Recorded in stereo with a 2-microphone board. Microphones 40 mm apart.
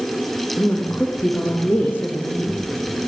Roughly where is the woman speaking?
Left.